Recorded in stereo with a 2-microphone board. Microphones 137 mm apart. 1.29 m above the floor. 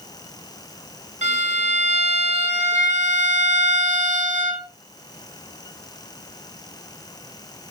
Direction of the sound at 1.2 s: 55° right (ahead or behind).